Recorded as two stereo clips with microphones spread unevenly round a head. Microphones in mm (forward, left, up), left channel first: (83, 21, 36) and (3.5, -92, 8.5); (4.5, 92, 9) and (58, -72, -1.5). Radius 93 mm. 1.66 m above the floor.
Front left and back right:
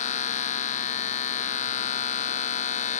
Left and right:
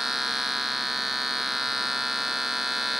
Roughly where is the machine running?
Ahead.